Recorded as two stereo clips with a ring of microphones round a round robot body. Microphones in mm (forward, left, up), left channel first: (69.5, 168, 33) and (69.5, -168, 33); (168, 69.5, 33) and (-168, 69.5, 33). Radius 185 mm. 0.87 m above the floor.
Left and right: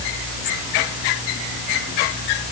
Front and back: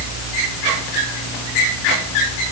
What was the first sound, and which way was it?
Only background noise.